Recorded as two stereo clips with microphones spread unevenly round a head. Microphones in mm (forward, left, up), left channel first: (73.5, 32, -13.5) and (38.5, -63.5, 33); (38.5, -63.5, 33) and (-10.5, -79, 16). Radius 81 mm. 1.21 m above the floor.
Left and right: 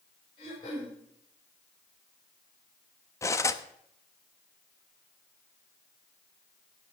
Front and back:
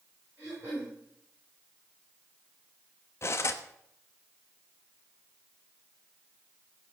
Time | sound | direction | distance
0.4 | throat clearing | 125° left | 7 m
3.2 | cutlery clinking | straight ahead | 1.0 m